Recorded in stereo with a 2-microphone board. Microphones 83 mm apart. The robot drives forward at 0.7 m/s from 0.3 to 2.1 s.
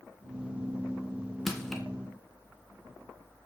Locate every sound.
1.5 s crushing: 5° left (ahead or behind), 2.5 m